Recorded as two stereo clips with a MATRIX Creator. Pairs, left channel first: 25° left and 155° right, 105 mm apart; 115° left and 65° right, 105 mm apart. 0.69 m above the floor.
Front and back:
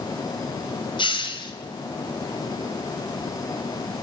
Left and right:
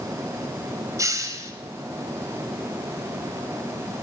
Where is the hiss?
10° right, 2.5 m.